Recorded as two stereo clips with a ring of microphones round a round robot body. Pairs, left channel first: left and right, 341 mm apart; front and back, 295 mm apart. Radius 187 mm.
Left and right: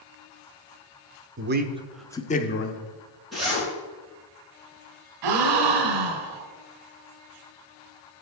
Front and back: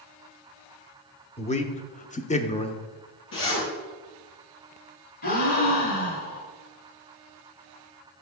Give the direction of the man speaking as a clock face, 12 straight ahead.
2 o'clock.